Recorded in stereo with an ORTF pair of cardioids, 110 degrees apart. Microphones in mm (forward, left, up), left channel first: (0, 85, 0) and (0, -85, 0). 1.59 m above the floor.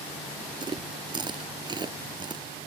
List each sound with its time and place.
0.6 s chewing: 25° right